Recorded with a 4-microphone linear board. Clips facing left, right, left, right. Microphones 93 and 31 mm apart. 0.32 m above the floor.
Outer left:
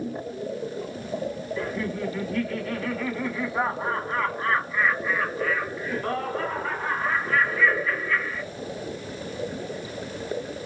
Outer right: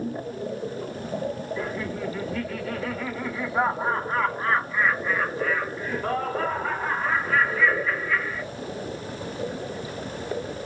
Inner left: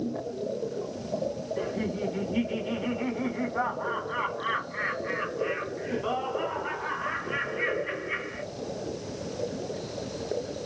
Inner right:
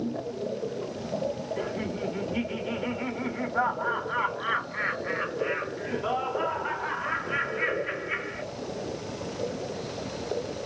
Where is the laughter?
10° right (ahead or behind), 2.5 m.